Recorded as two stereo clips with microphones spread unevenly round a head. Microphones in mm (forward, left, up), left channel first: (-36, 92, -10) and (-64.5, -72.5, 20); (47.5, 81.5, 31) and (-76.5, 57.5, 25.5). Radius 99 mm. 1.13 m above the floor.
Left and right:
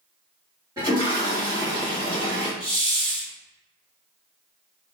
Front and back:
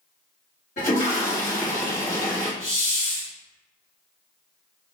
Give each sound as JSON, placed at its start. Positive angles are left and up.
{"t": 0.8, "sound": "a toilet flushing", "azimuth_deg": -25, "distance_m": 1.6}
{"t": 2.6, "sound": "a hiss", "azimuth_deg": -25, "distance_m": 1.9}